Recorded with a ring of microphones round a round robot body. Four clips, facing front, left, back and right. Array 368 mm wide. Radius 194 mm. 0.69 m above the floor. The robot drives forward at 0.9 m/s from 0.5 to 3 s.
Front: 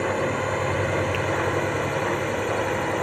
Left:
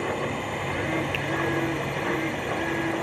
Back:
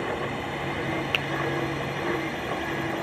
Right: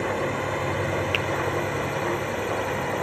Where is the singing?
I don't hear singing.